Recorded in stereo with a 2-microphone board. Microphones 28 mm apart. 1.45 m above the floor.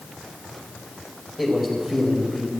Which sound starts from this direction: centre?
A man speaking, at 1.4 s.